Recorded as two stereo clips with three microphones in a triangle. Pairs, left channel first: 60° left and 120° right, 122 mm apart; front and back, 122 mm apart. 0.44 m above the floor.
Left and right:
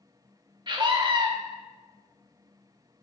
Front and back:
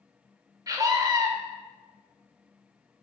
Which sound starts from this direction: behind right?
A scream, at 0.7 s.